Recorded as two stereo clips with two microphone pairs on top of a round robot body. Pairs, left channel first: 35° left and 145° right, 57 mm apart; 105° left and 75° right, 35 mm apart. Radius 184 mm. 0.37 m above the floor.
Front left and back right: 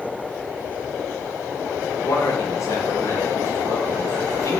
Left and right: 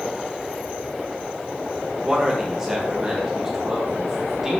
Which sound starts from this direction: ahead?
A man speaking, at 2.0 s.